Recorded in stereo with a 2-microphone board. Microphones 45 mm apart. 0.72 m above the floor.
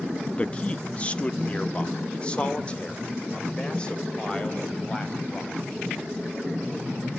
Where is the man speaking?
25° left (ahead or behind), 0.7 m; by 5.5 s 20° left (ahead or behind), 4.5 m.